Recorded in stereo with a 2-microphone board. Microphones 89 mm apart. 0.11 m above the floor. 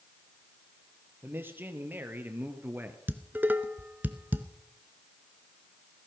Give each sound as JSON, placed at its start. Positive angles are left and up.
{"t": 1.2, "sound": "a man speaking", "side_deg": -25, "distance_m": 2.5}
{"t": 3.1, "sound": "dishes clattering", "side_deg": -20, "distance_m": 0.9}